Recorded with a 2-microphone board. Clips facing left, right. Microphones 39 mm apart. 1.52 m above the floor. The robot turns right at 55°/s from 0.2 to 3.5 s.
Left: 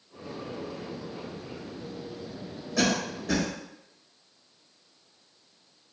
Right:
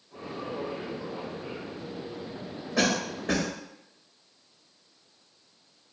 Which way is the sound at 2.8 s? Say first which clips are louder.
Even; 20° right (ahead or behind).